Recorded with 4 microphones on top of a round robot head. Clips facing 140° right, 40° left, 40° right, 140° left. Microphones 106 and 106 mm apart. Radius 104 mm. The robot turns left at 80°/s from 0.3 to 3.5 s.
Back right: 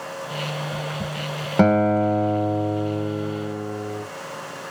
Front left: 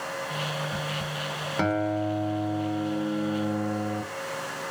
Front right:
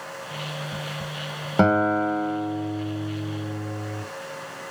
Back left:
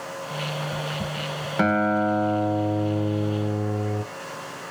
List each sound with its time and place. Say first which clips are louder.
1.6 s a guitar: back right 9 dB, front right 2 dB; 95° right, 0.5 m; by 4.0 s 110° left, 0.5 m